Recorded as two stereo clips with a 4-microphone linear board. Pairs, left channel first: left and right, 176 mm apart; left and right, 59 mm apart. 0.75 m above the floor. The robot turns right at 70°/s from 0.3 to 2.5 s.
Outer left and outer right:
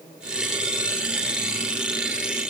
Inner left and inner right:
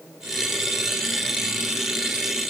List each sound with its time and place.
Only background noise.